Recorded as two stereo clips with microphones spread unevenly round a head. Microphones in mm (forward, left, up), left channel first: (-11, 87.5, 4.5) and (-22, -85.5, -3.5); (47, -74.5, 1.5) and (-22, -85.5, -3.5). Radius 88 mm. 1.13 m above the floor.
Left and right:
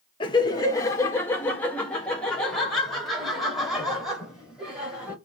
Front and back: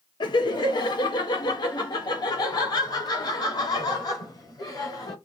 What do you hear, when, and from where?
0.2 s laughter: 20° left, 1.3 m; by 5.2 s 10° right, 3.5 m